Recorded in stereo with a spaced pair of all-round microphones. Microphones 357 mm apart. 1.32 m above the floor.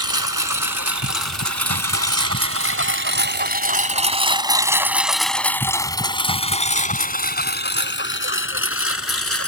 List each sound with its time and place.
0.0 s a lawn mower: 65° right (ahead or behind); by 9.5 s 40° left (ahead or behind)